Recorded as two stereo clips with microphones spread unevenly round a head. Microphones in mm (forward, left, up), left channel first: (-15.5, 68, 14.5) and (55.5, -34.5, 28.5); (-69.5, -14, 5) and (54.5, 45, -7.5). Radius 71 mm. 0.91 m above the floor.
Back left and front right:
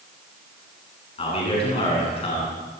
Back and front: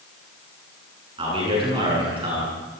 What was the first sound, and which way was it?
A man speaking, 80° left.